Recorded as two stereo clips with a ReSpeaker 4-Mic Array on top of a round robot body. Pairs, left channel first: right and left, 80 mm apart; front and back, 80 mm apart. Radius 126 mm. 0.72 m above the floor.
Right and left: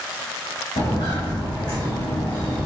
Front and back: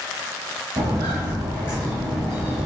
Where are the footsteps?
125° right, 1.9 m; by 2.7 s 95° right, 1.2 m.